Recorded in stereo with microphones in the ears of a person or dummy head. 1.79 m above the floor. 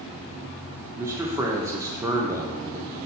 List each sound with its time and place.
1.0 s a man speaking: 10° right (ahead or behind), 0.5 m